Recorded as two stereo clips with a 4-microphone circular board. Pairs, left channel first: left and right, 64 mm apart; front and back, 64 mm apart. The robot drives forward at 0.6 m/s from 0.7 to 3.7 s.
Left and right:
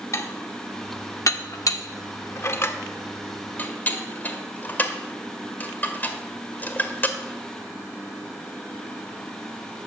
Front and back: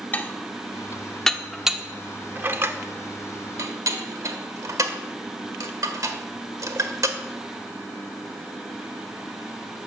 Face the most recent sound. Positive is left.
turn(degrees=150)